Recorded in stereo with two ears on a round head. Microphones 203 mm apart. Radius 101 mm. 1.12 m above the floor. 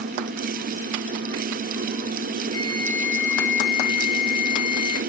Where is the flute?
70° left (ahead or behind), 8 m.